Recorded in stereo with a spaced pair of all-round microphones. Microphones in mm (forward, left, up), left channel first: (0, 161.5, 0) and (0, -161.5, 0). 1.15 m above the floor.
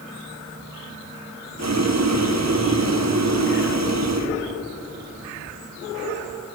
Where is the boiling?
55° right (ahead or behind), 0.8 m.